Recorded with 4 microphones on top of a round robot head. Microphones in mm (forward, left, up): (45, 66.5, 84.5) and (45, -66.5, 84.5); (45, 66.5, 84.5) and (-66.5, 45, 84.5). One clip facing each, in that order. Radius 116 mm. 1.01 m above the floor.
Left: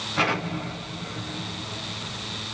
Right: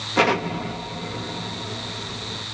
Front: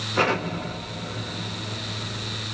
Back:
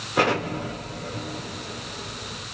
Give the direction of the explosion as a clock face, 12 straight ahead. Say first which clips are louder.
Right 6 dB, back 1 dB; 3 o'clock.